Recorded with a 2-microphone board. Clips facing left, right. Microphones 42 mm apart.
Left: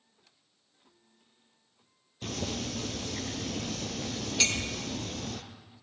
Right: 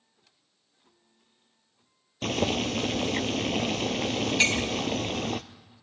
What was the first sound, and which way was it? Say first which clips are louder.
Boiling: right 8 dB; 70° right (ahead or behind).